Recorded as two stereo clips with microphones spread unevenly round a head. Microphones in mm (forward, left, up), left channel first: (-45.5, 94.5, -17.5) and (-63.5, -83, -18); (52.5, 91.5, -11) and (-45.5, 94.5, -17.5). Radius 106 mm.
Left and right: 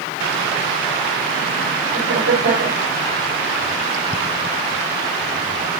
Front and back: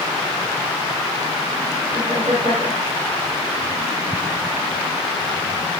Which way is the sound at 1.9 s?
120° right.